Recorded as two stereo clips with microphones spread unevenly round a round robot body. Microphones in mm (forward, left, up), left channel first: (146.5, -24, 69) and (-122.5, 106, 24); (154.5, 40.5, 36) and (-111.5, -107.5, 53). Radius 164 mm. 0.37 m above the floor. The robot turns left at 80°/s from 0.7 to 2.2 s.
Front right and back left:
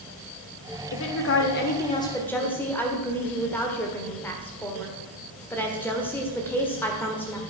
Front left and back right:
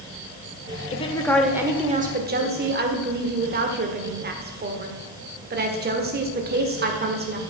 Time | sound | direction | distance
0.9 | a woman speaking | 15° right | 1.4 m